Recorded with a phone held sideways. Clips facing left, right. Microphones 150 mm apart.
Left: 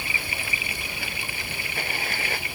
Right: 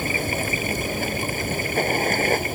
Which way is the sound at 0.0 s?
45° right (ahead or behind).